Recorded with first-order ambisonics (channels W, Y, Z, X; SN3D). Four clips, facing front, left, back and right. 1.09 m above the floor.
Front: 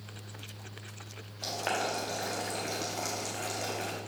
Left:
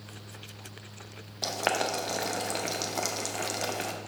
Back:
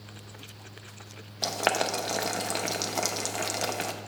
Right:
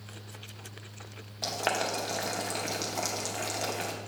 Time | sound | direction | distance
1.4 | boiling | 165° left | 0.6 m